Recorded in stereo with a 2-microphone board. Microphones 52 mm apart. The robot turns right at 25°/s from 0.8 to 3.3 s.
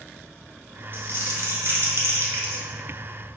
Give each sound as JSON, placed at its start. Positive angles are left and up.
{"t": 0.9, "sound": "crumpling", "azimuth_deg": -110, "distance_m": 1.6}